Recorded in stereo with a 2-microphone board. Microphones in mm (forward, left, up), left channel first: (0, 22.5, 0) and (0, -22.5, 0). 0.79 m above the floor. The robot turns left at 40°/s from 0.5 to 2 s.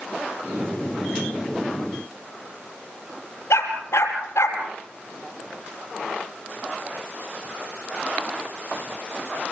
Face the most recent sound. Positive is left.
turn(degrees=75)  # may be behind; listen again after turning